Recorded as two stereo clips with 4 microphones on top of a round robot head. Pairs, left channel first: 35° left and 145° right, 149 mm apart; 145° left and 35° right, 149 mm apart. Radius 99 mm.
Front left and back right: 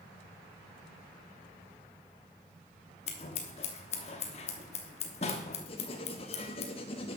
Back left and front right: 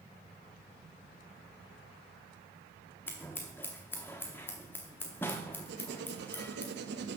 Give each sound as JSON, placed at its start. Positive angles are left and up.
{"t": 3.1, "sound": "scissors", "azimuth_deg": 70, "distance_m": 0.8}
{"t": 5.7, "sound": "writing", "azimuth_deg": -20, "distance_m": 0.8}